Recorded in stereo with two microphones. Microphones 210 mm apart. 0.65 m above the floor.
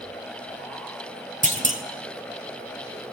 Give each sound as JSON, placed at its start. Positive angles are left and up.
{"t": 1.4, "sound": "a clunk", "side_deg": -35, "distance_m": 1.7}